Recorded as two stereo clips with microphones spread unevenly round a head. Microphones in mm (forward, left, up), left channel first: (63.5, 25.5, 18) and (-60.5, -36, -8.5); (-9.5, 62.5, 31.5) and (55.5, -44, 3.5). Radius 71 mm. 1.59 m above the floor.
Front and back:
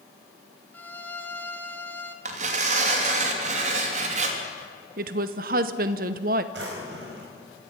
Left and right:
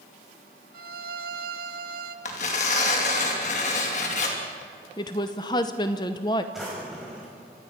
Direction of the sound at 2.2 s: 165° left.